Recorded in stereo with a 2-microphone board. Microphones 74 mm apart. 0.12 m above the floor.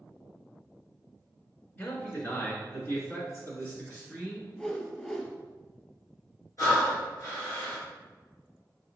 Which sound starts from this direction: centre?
A whoosh, at 4.6 s.